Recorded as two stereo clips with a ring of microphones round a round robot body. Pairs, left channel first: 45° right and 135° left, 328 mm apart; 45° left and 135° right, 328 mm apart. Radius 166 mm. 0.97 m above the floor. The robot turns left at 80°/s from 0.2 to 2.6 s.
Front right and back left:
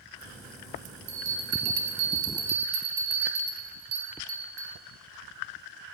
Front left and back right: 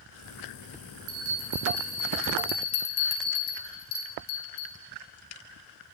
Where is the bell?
160° right, 0.6 m; by 4.8 s 75° left, 0.6 m.